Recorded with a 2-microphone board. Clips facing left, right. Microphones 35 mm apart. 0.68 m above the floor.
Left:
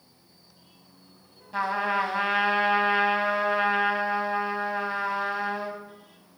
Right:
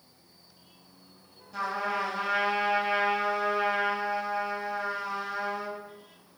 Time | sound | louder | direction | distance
1.5 | a trumpet | left 5 dB | 30° left (ahead or behind) | 0.9 m